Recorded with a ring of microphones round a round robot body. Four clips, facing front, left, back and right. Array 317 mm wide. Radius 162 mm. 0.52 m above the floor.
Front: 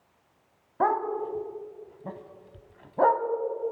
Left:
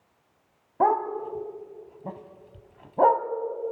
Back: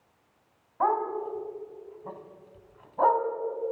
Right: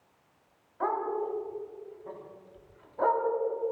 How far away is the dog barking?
About 1.5 m.